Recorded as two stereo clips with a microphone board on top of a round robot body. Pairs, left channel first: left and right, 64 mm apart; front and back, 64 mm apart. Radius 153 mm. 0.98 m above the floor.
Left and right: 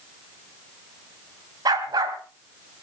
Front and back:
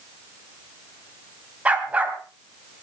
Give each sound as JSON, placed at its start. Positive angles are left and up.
{"t": 1.6, "sound": "a dog barking", "azimuth_deg": -110, "distance_m": 2.0}